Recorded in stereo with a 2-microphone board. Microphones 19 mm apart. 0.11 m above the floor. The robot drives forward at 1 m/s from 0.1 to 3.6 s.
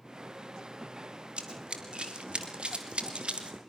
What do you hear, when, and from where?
1.4 s running footsteps: 70° right (ahead or behind), 3 m; by 3.6 s 85° right, 2.5 m